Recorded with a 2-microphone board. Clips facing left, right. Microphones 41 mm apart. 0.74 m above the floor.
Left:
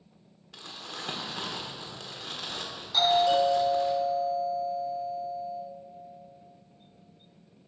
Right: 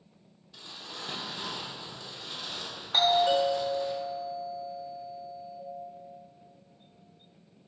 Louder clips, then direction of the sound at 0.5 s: Left 2 dB; 65° left (ahead or behind).